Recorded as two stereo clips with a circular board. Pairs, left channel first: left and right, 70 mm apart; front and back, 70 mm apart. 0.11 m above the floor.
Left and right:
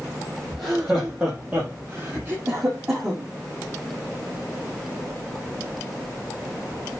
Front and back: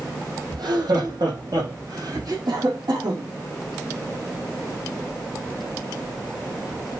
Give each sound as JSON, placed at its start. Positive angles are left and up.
{"t": 0.5, "sound": "laughter", "azimuth_deg": -165, "distance_m": 4.0}
{"t": 2.5, "sound": "a cough", "azimuth_deg": -160, "distance_m": 4.0}